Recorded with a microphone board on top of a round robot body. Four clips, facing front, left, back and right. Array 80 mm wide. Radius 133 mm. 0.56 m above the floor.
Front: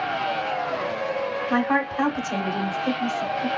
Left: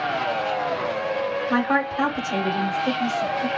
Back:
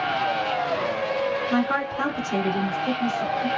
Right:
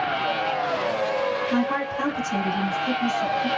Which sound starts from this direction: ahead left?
A woman speaking, at 1.5 s.